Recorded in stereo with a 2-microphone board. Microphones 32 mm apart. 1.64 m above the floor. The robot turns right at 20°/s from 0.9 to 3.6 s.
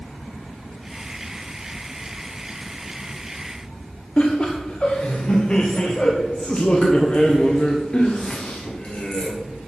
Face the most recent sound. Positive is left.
turn(degrees=35)  # may be behind; listen again after turning